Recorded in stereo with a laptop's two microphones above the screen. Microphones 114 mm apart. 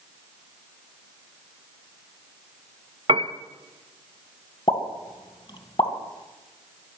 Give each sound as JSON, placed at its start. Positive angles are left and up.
{"t": 3.1, "sound": "a piano", "side_deg": -55, "distance_m": 0.7}
{"t": 4.7, "sound": "a pop", "side_deg": 45, "distance_m": 1.6}